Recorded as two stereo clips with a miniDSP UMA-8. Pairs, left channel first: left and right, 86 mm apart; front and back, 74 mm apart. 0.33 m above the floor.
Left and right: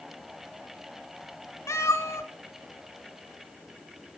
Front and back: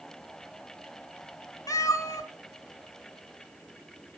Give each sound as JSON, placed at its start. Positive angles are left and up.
{"t": 1.7, "sound": "a cat meowing", "azimuth_deg": 35, "distance_m": 1.8}